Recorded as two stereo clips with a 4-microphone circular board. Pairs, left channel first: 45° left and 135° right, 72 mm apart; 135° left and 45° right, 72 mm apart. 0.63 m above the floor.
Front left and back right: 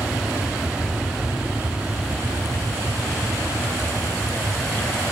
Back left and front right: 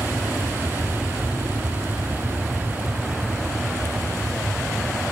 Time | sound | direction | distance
0.0 | an aircraft | 70° right | ?